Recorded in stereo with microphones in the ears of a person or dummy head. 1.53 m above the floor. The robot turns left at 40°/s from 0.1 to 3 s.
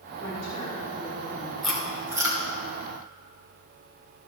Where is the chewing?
5° left (ahead or behind), 2.5 m; by 2.4 s 25° right (ahead or behind), 2.5 m.